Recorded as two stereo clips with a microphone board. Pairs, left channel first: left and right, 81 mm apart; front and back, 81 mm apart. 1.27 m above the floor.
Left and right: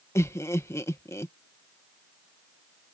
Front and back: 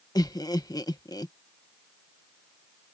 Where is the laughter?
35° left.